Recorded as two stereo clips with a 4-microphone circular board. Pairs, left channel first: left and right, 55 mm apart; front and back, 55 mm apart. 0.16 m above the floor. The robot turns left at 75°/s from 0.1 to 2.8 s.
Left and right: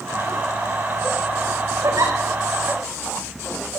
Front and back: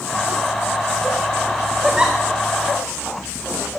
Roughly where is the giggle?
Right.